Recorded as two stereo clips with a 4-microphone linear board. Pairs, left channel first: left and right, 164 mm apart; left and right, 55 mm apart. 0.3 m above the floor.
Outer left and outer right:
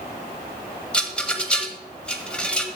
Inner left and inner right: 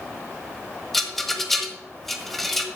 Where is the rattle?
5° left (ahead or behind), 1.3 m.